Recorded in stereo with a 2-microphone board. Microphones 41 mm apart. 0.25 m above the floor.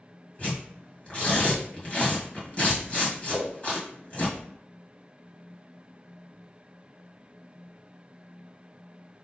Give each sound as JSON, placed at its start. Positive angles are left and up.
{"t": 0.4, "sound": "tearing paper", "side_deg": 35, "distance_m": 1.8}
{"t": 3.3, "sound": "a whoosh", "side_deg": -45, "distance_m": 0.9}